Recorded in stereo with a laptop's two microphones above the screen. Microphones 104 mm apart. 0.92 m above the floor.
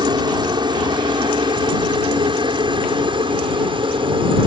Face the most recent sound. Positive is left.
turn(degrees=-55)  # may be behind; listen again after turning